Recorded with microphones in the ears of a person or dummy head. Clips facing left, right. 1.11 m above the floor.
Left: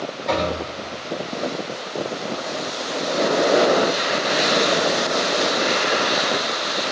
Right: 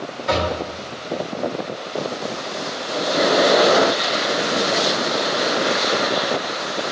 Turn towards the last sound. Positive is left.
turn(degrees=0)  # may be behind; listen again after turning